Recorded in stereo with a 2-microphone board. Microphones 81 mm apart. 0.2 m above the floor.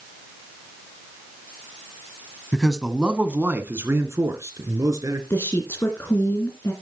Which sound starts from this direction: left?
A woman speaking, at 5.3 s.